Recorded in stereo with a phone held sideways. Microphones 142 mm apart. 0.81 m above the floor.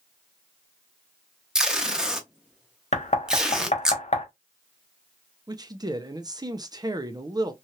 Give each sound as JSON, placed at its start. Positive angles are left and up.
{"t": 1.6, "sound": "tape being pulled", "side_deg": -5, "distance_m": 0.7}
{"t": 2.9, "sound": "knocking", "side_deg": 55, "distance_m": 0.8}
{"t": 5.5, "sound": "a man speaking", "side_deg": -30, "distance_m": 0.5}